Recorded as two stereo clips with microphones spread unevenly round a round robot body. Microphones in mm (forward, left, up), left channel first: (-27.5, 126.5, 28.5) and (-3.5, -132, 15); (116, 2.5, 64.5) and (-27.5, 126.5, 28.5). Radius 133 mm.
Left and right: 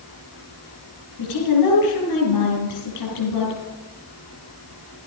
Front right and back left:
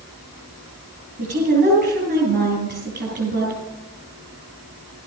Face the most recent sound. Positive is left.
turn(degrees=110)